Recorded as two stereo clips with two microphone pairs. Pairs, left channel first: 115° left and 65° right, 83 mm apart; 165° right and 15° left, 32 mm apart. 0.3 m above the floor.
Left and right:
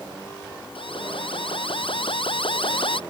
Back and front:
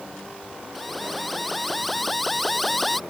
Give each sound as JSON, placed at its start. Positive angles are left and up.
{"t": 0.8, "sound": "an alarm", "azimuth_deg": 110}